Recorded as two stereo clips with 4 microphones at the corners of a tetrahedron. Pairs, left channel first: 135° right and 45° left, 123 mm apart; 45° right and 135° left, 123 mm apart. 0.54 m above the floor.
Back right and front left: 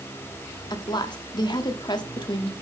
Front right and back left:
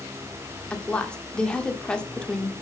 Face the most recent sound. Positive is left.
turn(degrees=-120)